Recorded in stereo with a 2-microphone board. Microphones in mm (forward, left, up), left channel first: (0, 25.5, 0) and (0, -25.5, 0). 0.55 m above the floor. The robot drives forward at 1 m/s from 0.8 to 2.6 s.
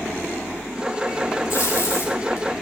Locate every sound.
1.5 s tape being pulled: 70° left (ahead or behind), 5 m; by 2.5 s 80° left, 5 m